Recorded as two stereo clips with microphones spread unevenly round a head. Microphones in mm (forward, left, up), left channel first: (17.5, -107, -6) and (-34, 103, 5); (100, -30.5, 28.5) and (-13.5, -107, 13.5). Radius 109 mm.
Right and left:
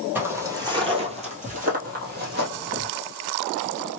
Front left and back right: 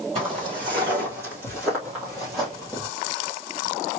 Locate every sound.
0.1 s footsteps: 175° left, 1.9 m; by 2.9 s 110° left, 2.5 m